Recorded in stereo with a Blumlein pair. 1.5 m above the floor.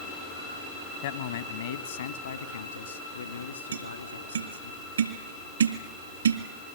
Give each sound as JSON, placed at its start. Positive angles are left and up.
{"t": 1.0, "sound": "a man speaking", "azimuth_deg": 55, "distance_m": 1.4}
{"t": 3.7, "sound": "tapping", "azimuth_deg": -70, "distance_m": 2.0}